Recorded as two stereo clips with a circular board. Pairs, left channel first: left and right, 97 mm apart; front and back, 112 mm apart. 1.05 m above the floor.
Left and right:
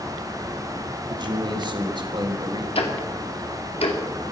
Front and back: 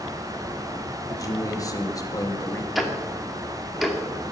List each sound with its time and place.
1.1 s a man speaking: 55° right, 2 m
2.8 s ticking: 90° left, 2 m